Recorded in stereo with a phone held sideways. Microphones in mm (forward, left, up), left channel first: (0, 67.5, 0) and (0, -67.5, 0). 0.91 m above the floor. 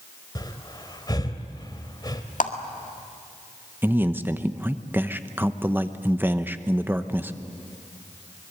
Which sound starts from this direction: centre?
A man speaking, at 3.8 s.